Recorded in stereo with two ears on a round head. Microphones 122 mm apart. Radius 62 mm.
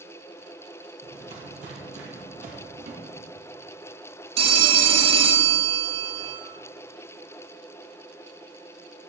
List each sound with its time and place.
1.0 s footsteps: 50° right (ahead or behind), 1.9 m; by 2.6 s 60° right (ahead or behind), 2.0 m
2.8 s a drawer: 50° right (ahead or behind), 1.0 m
4.4 s a phone ringing: 40° right (ahead or behind), 0.6 m